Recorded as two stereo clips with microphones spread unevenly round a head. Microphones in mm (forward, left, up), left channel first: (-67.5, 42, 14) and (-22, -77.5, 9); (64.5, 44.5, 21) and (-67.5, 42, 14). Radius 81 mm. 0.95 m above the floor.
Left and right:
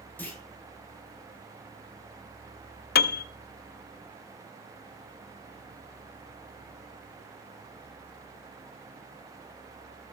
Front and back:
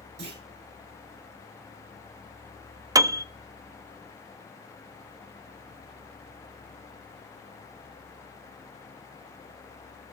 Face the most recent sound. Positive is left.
turn(degrees=115)